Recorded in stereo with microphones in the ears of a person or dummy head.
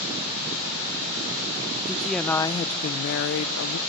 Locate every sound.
1.9 s a woman speaking: 5° left (ahead or behind), 0.8 m; by 3.8 s 85° left, 0.9 m